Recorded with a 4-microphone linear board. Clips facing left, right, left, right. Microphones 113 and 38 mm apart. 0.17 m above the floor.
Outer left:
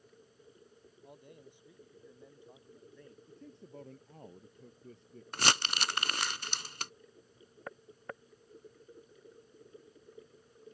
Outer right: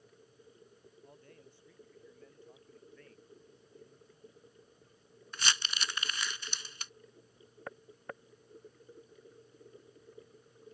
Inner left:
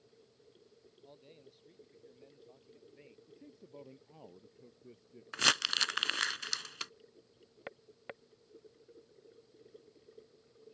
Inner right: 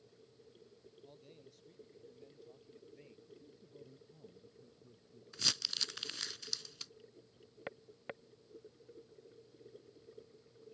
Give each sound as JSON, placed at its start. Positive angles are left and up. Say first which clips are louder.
{"t": 1.0, "sound": "a man speaking", "louder": "outer left 4 dB, inner left 2 dB", "side_deg": 15}
{"t": 3.3, "sound": "a man speaking", "louder": "outer left 6 dB, inner left 3 dB", "side_deg": 70}
{"t": 5.3, "sound": "crumpling", "louder": "outer left 5 dB, inner left 9 dB", "side_deg": 60}